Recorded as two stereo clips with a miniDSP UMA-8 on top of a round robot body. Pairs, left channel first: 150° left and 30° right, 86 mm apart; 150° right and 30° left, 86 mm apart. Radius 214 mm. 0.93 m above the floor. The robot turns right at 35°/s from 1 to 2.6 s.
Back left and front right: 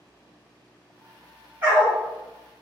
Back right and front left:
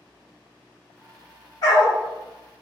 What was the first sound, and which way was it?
A dog barking, 105° right.